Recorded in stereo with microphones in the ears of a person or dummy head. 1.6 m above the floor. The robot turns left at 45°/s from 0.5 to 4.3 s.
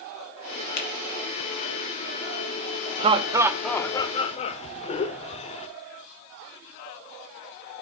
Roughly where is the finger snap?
Left.